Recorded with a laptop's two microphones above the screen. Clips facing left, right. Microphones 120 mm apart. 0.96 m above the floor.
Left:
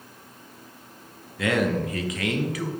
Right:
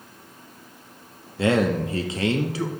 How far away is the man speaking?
About 0.8 m.